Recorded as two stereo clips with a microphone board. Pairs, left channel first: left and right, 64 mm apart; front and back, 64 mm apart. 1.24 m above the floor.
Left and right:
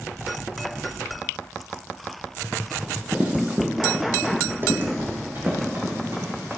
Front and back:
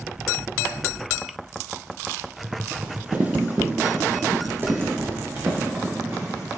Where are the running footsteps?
150° right, 1.4 m; by 6.6 s 135° right, 4 m.